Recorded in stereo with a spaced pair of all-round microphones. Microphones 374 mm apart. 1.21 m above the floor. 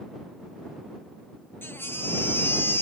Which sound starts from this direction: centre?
A baby crying, at 1.6 s.